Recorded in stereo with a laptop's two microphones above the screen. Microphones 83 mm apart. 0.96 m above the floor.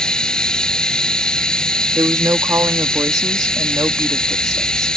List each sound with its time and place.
0.0 s running water: 5° left (ahead or behind)
1.9 s a woman speaking: 45° right (ahead or behind)